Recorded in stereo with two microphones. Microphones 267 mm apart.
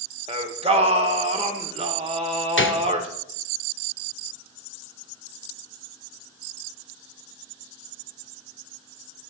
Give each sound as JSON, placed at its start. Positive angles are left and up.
{"t": 0.3, "sound": "singing", "side_deg": -25, "distance_m": 0.8}
{"t": 2.6, "sound": "a gunshot", "side_deg": 50, "distance_m": 0.5}